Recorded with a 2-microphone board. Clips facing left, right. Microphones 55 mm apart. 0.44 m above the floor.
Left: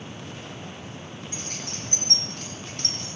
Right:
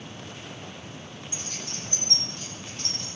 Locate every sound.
1.3 s keys jangling: 55° left (ahead or behind), 6 m; by 3.2 s 65° left (ahead or behind), 5 m